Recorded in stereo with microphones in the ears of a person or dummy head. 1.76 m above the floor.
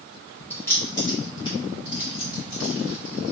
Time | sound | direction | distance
0.5 | keys jangling | 10° left (ahead or behind) | 1.9 m